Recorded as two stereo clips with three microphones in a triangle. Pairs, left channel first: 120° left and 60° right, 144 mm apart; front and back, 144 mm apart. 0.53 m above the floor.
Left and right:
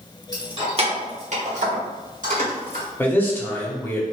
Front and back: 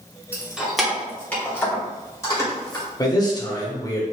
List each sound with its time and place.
0.3 s keys jangling: 105° right, 0.7 m; by 2.9 s 65° right, 1.7 m
3.0 s a man speaking: 50° left, 0.8 m